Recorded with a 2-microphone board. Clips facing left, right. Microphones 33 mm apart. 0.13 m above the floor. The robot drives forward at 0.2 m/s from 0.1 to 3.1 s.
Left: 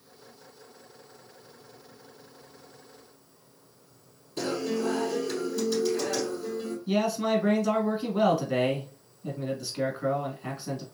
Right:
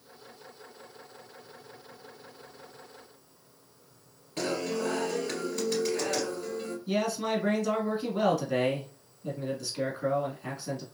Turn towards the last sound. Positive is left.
turn(degrees=10)  # may be behind; listen again after turning